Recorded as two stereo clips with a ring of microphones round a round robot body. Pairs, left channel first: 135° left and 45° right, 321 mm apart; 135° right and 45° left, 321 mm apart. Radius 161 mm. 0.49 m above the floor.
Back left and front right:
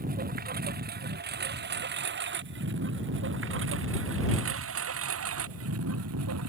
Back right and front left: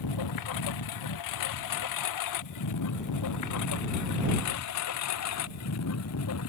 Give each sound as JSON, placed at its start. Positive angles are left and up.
{"t": 0.0, "sound": "a lawn mower", "azimuth_deg": -110}